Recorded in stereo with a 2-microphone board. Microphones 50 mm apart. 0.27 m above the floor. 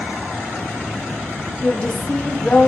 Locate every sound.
1.6 s a woman speaking: 20° left (ahead or behind), 1.2 m